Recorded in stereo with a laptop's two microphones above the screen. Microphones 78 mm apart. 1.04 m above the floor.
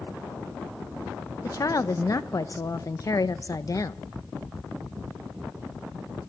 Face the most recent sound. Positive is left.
turn(degrees=45)  # may be behind; listen again after turning